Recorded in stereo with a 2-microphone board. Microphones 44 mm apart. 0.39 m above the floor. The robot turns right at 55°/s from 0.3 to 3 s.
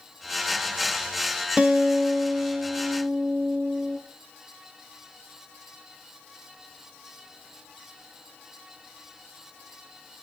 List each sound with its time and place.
1.6 s a guitar: 155° right, 1.8 m; by 4.0 s 75° right, 1.8 m